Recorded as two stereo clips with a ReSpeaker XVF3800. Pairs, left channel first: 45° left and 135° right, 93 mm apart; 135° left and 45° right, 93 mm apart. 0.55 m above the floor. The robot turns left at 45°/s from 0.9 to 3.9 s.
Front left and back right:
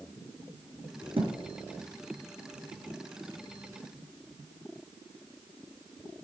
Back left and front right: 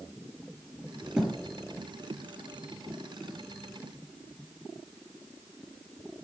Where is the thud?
125° right, 1.4 m; by 1.4 s 135° right, 1.4 m.